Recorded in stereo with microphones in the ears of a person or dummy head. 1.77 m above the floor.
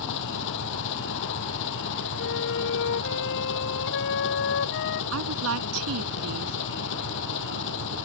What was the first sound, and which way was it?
An engine running, 70° left (ahead or behind).